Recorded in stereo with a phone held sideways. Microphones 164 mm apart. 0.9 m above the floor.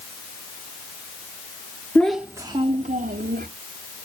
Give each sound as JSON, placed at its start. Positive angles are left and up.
{"t": 1.9, "sound": "a child speaking", "side_deg": 10, "distance_m": 0.7}